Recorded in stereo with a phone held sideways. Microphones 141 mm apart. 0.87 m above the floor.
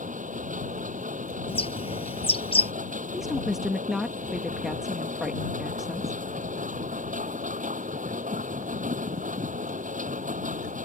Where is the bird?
40° left (ahead or behind).